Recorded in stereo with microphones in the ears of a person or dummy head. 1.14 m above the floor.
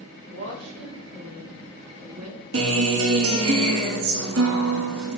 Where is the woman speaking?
80° right, 6 m; by 2.4 s 85° right, 4 m.